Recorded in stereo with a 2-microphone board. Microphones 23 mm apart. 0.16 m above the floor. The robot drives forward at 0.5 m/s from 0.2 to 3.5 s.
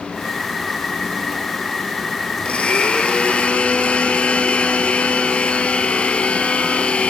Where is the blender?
55° left (ahead or behind), 3 m; by 7.1 s 60° left (ahead or behind), 3 m.